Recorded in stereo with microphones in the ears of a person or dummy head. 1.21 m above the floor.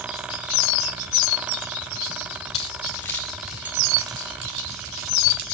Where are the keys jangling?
25° left (ahead or behind), 3 m; by 5.5 s 50° right (ahead or behind), 4 m.